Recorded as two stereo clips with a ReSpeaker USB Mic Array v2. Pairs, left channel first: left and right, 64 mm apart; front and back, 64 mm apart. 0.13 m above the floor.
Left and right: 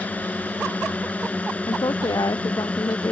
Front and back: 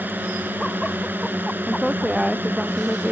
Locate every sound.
0.0 s a drone: 140° left; by 3.1 s 145° left
1.7 s a woman speaking: 95° left